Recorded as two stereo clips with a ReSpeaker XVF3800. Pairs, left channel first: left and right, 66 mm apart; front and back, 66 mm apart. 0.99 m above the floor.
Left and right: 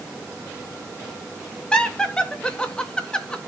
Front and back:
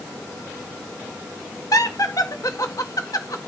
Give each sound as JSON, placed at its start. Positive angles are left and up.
{"t": 1.7, "sound": "laughter", "azimuth_deg": 15, "distance_m": 1.7}